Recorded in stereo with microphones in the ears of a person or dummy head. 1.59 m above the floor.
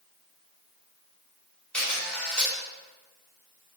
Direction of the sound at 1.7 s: 5° left (ahead or behind).